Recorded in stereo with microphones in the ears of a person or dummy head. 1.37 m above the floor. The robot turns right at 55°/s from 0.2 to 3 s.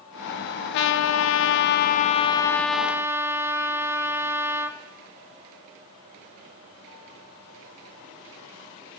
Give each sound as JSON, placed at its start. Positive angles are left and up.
{"t": 0.7, "sound": "a trumpet", "azimuth_deg": 65, "distance_m": 0.7}